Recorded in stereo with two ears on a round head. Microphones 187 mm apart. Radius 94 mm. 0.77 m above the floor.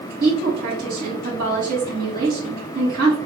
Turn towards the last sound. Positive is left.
turn(degrees=-45)  # may be behind; listen again after turning